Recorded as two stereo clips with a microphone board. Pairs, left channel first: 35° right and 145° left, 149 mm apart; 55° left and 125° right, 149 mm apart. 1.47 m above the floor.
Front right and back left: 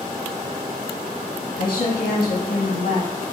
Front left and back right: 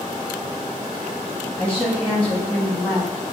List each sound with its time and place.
1.6 s a woman speaking: 25° right, 1.4 m